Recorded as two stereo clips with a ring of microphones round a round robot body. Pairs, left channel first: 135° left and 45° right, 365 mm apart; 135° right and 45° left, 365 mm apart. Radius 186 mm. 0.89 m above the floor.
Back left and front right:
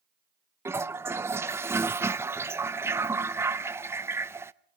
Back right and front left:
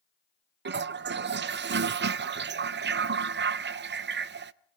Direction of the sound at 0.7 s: 30° left.